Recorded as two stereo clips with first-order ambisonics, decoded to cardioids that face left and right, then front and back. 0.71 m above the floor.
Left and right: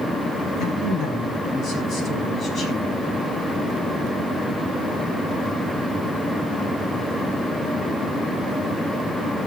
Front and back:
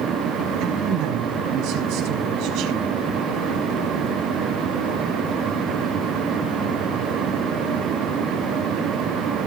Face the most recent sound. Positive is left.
turn(degrees=155)